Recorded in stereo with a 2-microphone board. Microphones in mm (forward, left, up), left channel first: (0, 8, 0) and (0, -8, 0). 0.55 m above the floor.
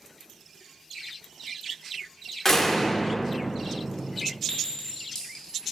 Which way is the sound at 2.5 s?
25° left (ahead or behind).